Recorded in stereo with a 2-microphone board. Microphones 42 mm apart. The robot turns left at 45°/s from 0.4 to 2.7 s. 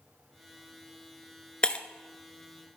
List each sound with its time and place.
1.6 s breaking glass: 20° left (ahead or behind), 0.7 m; by 1.9 s 25° left (ahead or behind), 0.7 m